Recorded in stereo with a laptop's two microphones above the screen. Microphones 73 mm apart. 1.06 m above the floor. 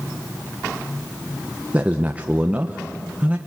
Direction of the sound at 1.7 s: 20° right (ahead or behind).